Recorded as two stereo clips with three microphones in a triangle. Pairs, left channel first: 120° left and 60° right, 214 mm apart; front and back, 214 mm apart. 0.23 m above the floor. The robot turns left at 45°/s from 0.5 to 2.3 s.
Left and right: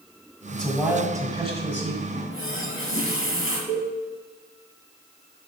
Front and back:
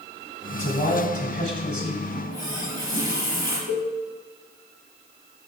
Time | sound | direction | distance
0.5 | a man speaking | 35° left | 1.6 m
2.1 | a running tap | 115° left | 3.5 m
3.7 | a cowbell | 155° right | 2.5 m